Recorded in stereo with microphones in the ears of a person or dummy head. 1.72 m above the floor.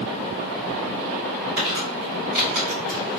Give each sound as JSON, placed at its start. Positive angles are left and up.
{"t": 1.6, "sound": "crumpling", "side_deg": -45, "distance_m": 1.5}